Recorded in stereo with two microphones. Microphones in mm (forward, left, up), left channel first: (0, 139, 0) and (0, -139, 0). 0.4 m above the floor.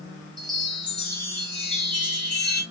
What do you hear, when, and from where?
0.4 s a chime: 15° right (ahead or behind), 1.5 m